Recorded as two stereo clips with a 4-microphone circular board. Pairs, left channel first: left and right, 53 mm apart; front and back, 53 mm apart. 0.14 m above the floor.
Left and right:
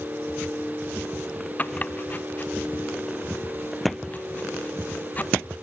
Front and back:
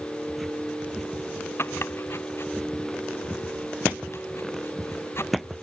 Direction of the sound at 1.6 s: 30° left.